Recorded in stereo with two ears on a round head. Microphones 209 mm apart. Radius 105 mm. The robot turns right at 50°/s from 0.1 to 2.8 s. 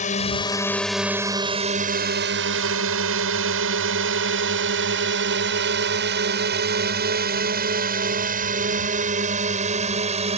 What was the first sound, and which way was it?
A drone, 35° left (ahead or behind).